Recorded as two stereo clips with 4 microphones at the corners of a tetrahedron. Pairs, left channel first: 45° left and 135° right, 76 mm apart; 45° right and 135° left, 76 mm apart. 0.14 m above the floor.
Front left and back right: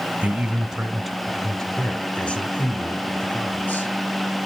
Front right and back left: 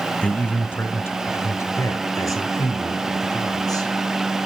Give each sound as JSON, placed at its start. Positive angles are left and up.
{"t": 0.2, "sound": "a man speaking", "azimuth_deg": -95, "distance_m": 1.2}